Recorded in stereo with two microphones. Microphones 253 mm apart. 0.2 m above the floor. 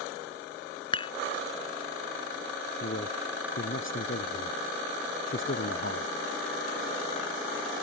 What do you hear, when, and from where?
0.9 s dishes clattering: 20° left (ahead or behind)
2.8 s a man speaking: 50° left (ahead or behind)